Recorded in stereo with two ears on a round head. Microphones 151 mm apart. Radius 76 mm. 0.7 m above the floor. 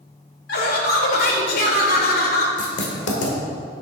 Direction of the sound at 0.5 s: 60° left (ahead or behind).